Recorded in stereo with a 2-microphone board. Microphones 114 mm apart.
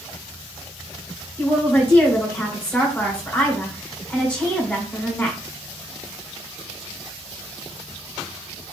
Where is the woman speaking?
20° left (ahead or behind), 1.6 m.